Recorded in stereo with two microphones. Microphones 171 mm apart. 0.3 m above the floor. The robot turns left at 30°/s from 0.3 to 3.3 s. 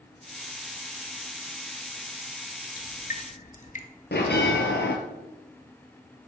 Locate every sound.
2.8 s dripping: 65° left (ahead or behind), 0.8 m; by 3.9 s 50° left (ahead or behind), 0.8 m
4.1 s a bell: 85° left, 1.1 m